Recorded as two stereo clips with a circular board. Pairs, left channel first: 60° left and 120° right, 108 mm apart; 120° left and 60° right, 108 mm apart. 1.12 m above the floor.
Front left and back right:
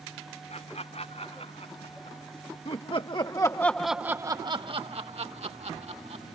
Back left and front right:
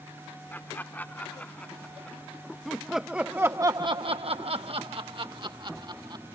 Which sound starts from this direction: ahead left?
Laughter, at 0.5 s.